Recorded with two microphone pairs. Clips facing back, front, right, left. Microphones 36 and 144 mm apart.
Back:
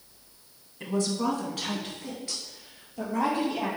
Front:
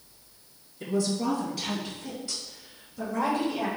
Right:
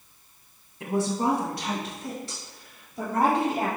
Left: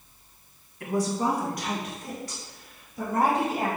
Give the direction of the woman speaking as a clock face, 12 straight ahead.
5 o'clock.